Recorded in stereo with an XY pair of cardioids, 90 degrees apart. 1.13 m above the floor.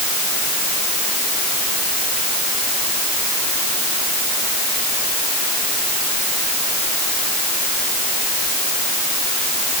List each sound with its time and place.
Only background noise.